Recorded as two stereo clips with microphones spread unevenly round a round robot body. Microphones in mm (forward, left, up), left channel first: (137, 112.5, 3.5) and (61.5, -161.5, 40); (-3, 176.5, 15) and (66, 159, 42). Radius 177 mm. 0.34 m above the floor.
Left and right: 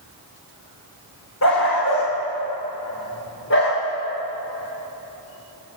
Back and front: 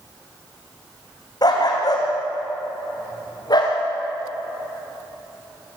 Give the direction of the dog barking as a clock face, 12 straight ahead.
8 o'clock.